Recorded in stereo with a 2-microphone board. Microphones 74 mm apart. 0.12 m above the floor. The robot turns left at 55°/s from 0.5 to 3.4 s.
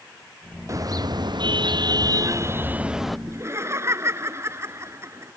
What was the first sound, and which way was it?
A car horn, 45° right.